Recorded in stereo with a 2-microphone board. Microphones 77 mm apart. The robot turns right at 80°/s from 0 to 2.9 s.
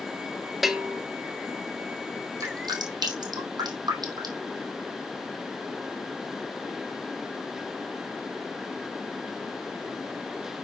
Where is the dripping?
45° right (ahead or behind), 2.5 m; by 4.5 s 75° right (ahead or behind), 2.5 m.